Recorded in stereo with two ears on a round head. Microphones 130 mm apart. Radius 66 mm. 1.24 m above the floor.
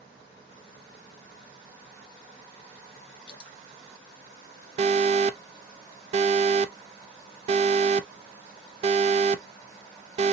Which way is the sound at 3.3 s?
80° left.